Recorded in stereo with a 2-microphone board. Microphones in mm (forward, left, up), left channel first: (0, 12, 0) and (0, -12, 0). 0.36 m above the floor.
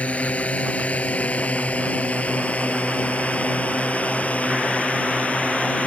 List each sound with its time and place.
0.0 s a drone: 75° left (ahead or behind); by 5.9 s 80° left